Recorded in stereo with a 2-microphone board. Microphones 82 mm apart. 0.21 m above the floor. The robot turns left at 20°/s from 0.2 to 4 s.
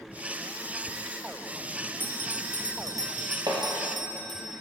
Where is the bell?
25° right, 1.8 m; by 4.5 s 65° right, 1.8 m.